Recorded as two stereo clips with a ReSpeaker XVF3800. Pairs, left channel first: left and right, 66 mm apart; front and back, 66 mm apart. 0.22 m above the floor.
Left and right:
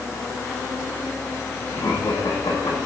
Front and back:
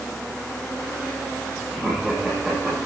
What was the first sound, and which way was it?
Laughter, 90° left.